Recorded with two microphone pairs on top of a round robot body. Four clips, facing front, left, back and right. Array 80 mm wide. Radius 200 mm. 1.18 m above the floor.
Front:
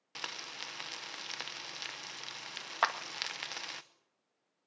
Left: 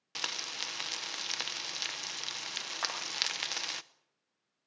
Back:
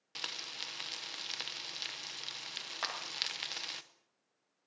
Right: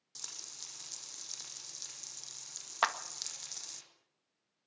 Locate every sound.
0.1 s frying: 65° left, 1.0 m
2.8 s a clap: 35° right, 1.8 m